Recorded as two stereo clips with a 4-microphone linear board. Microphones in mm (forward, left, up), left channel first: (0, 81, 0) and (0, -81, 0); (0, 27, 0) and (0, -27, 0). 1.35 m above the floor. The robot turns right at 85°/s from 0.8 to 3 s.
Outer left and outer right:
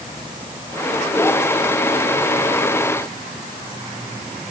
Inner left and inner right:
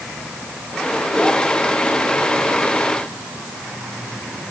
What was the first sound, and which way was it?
Only background noise.